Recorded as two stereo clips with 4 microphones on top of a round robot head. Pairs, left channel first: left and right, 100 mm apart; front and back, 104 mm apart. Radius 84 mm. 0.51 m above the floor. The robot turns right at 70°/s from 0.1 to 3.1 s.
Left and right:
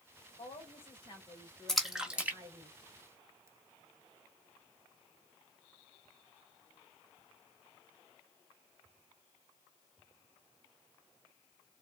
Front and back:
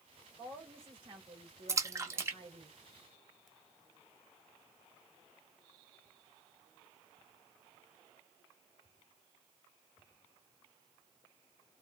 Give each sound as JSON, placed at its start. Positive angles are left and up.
{"t": 0.4, "sound": "a woman speaking", "azimuth_deg": 85, "distance_m": 2.5}
{"t": 1.7, "sound": "a splash", "azimuth_deg": 170, "distance_m": 1.4}